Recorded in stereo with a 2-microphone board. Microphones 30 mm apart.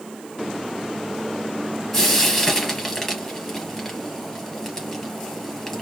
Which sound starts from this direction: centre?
Frying, at 1.9 s.